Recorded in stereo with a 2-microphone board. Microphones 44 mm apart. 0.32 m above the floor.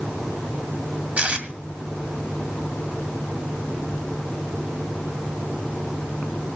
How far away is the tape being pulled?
About 2 m.